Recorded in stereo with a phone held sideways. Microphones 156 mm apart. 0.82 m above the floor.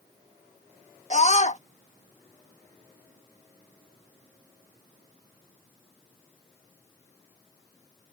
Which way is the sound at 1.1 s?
50° left (ahead or behind).